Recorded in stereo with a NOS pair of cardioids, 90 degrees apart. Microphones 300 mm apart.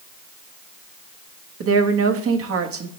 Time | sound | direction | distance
1.6 | a woman speaking | 50° right | 1.3 m